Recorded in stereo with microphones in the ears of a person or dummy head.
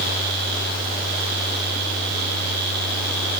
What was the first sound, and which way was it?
Only background noise.